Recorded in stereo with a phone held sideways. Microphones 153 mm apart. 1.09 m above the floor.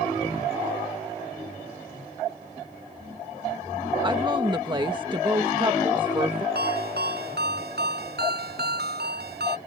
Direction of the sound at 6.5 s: 85° right.